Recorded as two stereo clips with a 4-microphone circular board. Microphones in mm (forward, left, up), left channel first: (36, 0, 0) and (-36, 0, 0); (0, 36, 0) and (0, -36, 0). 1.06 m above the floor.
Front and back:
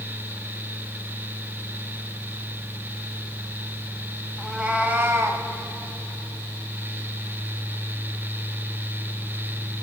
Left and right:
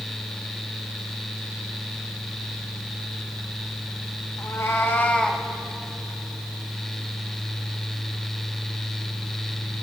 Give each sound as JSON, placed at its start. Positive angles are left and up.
{"t": 4.4, "sound": "a cat meowing", "azimuth_deg": 100, "distance_m": 1.2}